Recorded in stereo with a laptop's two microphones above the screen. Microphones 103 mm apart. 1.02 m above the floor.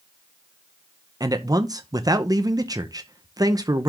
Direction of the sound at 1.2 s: 40° right (ahead or behind).